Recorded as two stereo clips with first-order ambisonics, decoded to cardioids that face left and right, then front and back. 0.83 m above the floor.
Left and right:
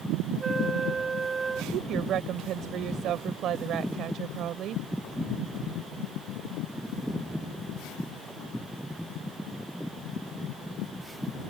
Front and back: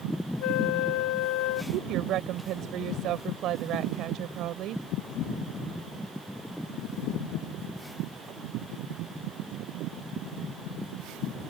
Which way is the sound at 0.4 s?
15° right.